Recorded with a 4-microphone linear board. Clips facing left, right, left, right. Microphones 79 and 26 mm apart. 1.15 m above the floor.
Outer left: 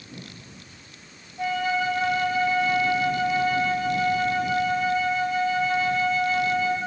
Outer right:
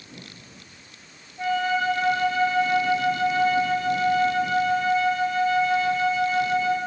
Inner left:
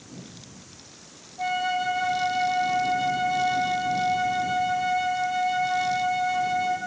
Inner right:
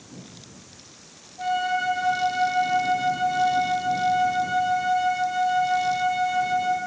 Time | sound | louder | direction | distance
1.4 | a flute | outer right 2 dB, inner right 1 dB | 5° left (ahead or behind) | 2.0 m